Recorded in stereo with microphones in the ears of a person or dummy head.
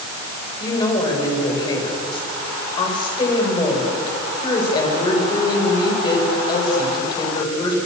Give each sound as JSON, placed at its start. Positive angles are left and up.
{"t": 0.6, "sound": "a woman speaking", "side_deg": 30, "distance_m": 7.5}